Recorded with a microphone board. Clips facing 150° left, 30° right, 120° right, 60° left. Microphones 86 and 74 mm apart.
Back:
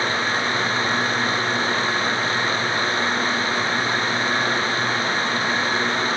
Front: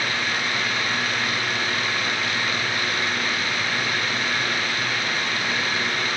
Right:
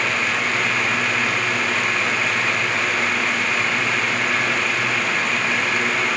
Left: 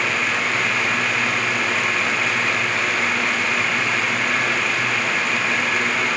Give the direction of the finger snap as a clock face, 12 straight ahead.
I don't hear a finger snap.